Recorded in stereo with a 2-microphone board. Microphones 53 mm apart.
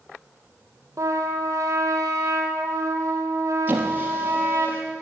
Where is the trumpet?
65° right (ahead or behind), 2 m.